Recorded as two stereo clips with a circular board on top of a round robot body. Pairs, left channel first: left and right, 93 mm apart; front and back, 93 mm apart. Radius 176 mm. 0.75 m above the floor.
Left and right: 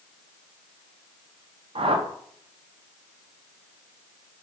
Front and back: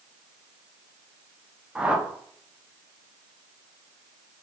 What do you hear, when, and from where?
1.8 s a whoosh: 100° right, 1.1 m